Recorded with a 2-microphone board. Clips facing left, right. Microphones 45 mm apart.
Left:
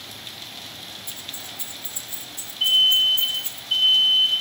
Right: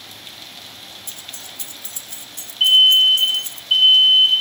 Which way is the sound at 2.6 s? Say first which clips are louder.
Right 6 dB; 55° right (ahead or behind).